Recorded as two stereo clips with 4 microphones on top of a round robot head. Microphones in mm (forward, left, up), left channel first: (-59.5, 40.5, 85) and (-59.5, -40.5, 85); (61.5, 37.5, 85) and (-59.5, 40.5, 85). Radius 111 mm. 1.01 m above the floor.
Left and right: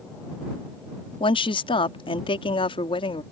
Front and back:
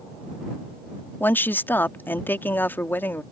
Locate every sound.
1.2 s a woman speaking: 75° left